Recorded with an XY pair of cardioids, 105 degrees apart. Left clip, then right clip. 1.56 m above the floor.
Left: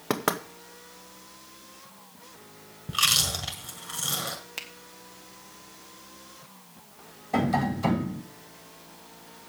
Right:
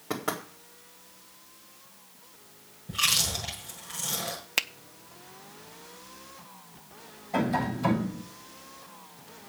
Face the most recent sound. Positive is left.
turn(degrees=50)